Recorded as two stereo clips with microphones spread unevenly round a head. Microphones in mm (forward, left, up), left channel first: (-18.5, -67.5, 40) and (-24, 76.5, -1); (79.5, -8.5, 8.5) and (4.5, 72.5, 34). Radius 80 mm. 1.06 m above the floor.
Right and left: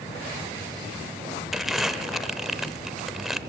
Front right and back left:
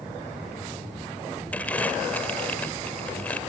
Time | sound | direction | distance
1.5 | crumpling | 145° right | 0.8 m